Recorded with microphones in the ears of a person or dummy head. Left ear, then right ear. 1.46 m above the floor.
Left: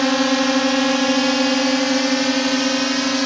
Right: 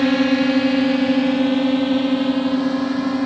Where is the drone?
40° left (ahead or behind); by 3.3 s 70° left (ahead or behind).